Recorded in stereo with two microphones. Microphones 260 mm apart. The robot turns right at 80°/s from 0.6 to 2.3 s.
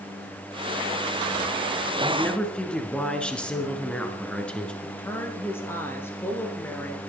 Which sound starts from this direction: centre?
A woman speaking, at 4.8 s.